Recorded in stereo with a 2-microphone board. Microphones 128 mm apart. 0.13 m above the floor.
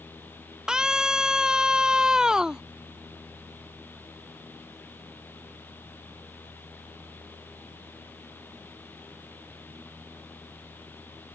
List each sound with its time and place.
0.7 s a scream: 5° right (ahead or behind)